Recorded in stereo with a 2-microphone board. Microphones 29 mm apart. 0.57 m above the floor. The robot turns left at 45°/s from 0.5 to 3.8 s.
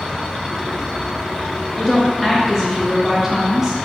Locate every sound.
1.8 s a woman speaking: 10° left (ahead or behind), 0.6 m; by 3.8 s 25° right (ahead or behind), 0.6 m